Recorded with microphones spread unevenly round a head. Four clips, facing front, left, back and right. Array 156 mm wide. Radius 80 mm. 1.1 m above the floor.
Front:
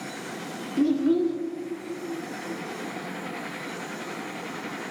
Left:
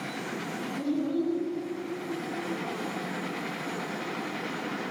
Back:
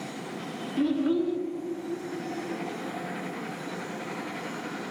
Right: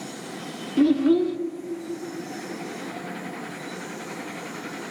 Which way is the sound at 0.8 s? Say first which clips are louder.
Right 11 dB, front 3 dB; 70° right.